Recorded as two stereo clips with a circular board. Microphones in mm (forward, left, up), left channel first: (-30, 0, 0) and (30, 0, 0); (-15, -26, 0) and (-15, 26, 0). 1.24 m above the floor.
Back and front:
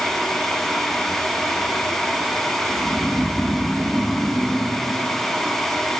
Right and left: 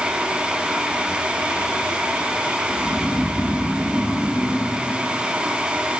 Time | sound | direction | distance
2.7 | snoring | 70° left | 0.6 m